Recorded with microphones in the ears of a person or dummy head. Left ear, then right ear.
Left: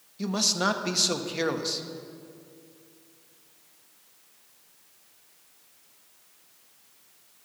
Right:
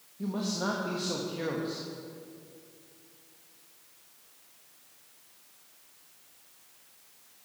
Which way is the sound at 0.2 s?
75° left (ahead or behind).